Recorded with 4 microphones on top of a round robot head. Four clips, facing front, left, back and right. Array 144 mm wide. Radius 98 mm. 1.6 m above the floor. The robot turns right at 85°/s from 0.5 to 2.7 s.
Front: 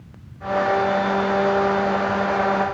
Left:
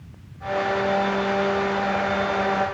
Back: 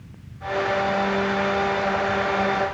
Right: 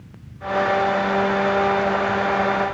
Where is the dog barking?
I don't hear a dog barking.